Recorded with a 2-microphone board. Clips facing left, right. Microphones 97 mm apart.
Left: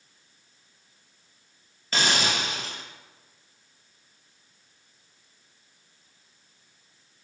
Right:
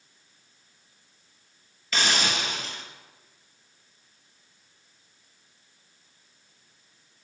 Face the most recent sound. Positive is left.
turn(degrees=40)  # may be behind; listen again after turning